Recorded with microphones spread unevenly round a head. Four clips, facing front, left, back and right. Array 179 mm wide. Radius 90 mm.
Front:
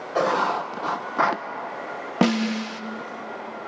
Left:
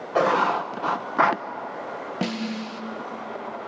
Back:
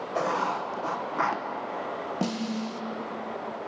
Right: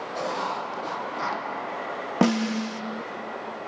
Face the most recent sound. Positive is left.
turn(degrees=-25)